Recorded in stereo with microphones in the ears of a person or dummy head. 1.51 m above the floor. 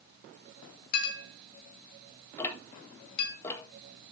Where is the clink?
55° left (ahead or behind), 1.9 m.